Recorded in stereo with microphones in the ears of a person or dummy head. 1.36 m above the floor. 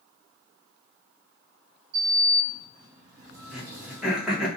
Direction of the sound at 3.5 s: 5° right (ahead or behind).